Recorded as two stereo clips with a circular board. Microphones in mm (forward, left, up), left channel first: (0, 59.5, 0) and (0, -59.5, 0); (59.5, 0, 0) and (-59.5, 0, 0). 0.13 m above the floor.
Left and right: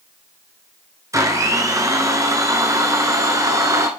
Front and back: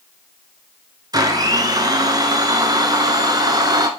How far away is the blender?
About 1.0 m.